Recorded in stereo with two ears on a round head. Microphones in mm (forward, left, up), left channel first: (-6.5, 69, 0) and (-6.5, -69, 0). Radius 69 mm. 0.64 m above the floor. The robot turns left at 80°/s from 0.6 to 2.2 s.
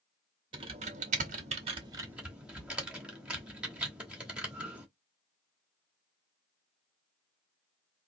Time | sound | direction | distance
0.5 | typing on a keyboard | 30° right (ahead or behind) | 1.0 m